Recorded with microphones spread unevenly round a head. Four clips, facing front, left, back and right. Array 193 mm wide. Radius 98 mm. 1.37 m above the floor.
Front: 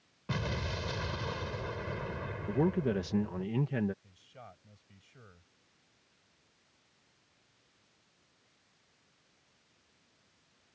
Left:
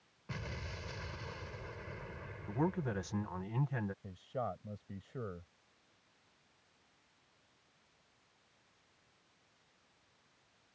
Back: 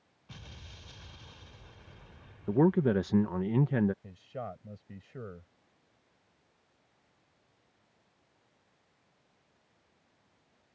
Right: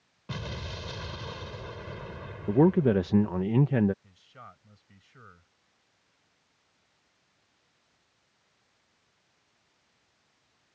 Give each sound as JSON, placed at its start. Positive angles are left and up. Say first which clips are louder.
{"t": 0.3, "sound": "an explosion", "louder": "right 7 dB, front 17 dB", "azimuth_deg": -25}
{"t": 2.5, "sound": "a man speaking", "louder": "right 15 dB, back 5 dB", "azimuth_deg": -110}
{"t": 4.0, "sound": "a man speaking", "louder": "left 11 dB, back 12 dB", "azimuth_deg": 135}